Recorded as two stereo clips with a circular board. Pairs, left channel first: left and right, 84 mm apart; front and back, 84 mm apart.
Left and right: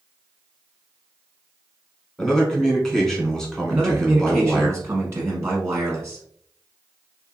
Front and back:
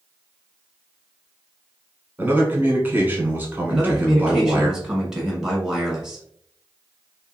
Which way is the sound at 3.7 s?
95° right.